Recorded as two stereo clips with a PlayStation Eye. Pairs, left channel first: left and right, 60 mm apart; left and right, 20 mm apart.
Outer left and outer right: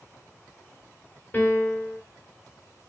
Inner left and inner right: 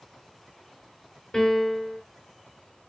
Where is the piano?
30° left (ahead or behind), 3 m.